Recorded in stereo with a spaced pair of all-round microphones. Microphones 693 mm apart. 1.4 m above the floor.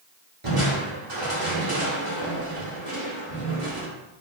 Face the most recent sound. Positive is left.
turn(degrees=-45)  # may be behind; listen again after turning